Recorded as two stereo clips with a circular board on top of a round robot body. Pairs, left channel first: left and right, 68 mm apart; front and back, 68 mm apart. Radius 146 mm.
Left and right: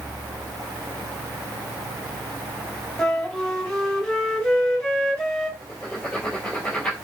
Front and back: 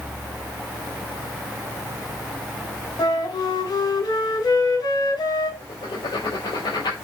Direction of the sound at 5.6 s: 15° left.